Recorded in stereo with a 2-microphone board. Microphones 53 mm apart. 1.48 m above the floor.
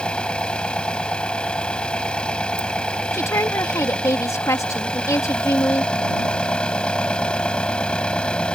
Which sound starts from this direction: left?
A woman speaking, at 3.1 s.